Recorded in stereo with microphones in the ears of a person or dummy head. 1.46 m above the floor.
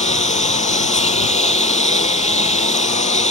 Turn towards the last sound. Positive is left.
turn(degrees=40)  # may be behind; listen again after turning